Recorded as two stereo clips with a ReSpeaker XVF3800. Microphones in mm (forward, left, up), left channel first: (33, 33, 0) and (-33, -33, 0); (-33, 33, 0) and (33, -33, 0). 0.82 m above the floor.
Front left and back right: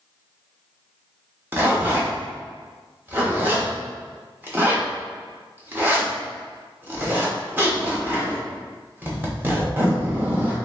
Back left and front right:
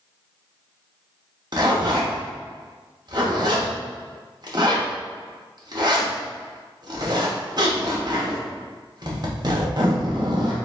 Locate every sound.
1.5 s a zipper: 70° right, 1.1 m